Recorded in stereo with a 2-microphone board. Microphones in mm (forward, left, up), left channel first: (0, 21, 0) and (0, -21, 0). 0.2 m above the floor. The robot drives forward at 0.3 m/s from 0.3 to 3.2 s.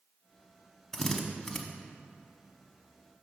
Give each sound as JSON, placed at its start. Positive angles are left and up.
{"t": 0.9, "sound": "a drill", "side_deg": 10, "distance_m": 0.8}